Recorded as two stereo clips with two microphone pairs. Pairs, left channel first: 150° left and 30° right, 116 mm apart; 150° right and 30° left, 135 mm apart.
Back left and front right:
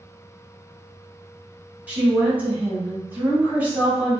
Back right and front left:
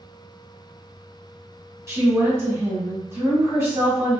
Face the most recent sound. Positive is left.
turn(degrees=20)